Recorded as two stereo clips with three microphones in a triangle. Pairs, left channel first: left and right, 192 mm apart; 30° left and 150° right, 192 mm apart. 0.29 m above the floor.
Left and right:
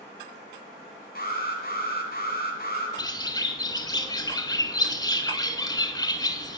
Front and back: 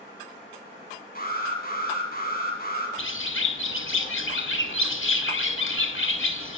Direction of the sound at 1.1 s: 60° left.